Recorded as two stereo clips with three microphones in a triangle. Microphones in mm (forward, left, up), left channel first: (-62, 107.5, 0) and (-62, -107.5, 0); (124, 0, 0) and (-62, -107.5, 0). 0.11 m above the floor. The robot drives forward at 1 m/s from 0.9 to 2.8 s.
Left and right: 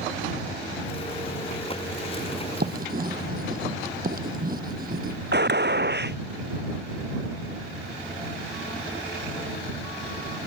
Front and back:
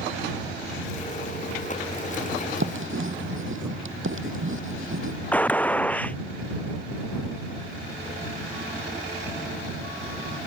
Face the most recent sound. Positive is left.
turn(degrees=-55)